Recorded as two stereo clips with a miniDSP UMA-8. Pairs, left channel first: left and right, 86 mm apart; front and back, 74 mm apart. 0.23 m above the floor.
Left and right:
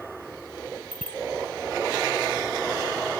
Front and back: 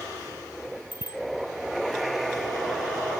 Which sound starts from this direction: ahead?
A bicycle bell, at 0.9 s.